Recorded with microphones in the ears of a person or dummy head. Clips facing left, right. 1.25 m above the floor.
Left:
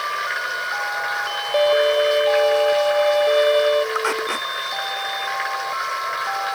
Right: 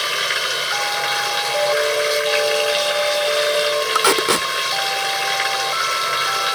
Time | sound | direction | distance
0.0 | running water | 45° right (ahead or behind) | ?
1.5 | a violin | 45° left (ahead or behind) | ?
4.0 | tape being pulled | 75° right (ahead or behind) | ?